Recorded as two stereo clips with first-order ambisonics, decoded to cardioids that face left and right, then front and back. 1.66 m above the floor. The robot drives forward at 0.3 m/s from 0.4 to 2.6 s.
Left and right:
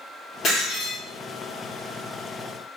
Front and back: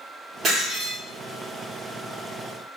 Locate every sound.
0.4 s breaking glass: 130° left, 1.7 m; by 1.0 s 135° left, 1.8 m